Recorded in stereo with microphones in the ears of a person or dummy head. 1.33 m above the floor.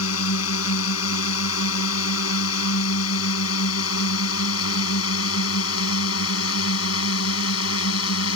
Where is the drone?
85° left.